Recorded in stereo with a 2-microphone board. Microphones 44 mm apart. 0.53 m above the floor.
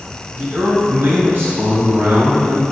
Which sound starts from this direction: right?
A man speaking, at 0.3 s.